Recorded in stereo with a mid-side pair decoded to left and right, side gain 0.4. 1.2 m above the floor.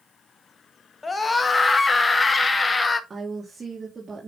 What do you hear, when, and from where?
1.0 s a scream: 30° left, 1.0 m
3.1 s a woman speaking: 35° right, 2 m